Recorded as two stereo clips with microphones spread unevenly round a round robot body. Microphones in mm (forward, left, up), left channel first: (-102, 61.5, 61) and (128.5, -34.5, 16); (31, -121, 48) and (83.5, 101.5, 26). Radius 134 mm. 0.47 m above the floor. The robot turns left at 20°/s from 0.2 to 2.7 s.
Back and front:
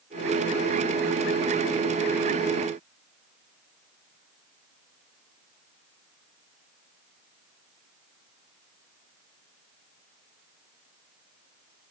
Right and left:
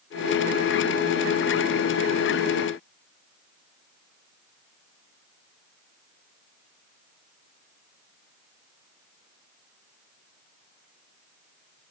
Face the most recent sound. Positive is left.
No sound to turn to.